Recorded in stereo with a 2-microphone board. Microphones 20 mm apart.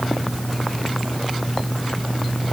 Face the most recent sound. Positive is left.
No sound to turn to.